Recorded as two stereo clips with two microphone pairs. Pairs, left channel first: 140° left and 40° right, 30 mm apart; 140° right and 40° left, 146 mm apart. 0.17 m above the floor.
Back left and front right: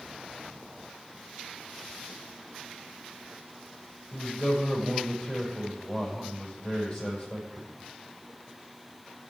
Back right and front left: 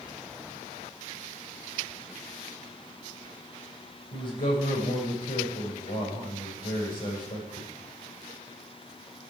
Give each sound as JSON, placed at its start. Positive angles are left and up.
{"t": 4.1, "sound": "a man speaking", "azimuth_deg": -155, "distance_m": 6.0}